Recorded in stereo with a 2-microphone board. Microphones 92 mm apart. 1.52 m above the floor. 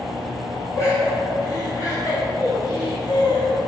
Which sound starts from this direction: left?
Laughter, at 0.8 s.